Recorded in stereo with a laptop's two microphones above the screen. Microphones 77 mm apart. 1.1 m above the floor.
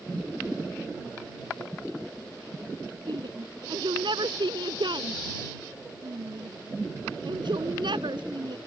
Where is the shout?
75° right (ahead or behind).